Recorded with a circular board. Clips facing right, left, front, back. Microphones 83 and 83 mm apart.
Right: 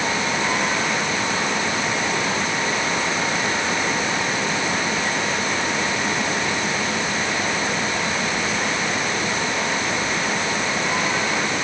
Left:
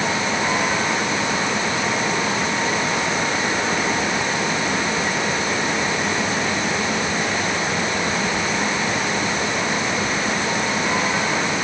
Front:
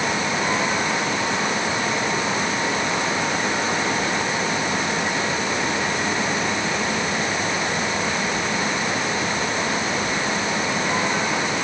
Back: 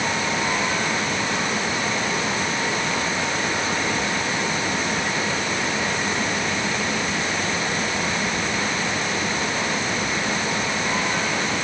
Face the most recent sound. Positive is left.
No sound to turn to.